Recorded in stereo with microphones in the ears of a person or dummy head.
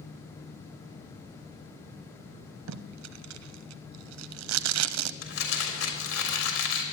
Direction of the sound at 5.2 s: 85° left.